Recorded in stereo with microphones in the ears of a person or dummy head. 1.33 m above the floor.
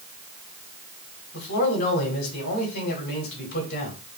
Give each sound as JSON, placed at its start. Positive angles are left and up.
{"t": 1.3, "sound": "a man speaking", "side_deg": 55, "distance_m": 3.0}